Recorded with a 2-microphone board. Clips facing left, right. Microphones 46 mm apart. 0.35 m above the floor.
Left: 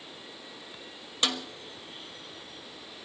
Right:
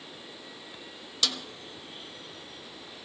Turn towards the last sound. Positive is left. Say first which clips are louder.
# left 2 dB
turn(degrees=30)  # may be behind; listen again after turning